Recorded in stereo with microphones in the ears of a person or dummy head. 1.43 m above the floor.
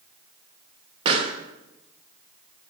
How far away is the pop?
About 1.0 m.